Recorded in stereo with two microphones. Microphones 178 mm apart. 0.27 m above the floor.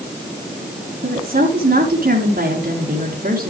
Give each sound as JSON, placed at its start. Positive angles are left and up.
{"t": 1.0, "sound": "a woman speaking", "side_deg": -60, "distance_m": 3.0}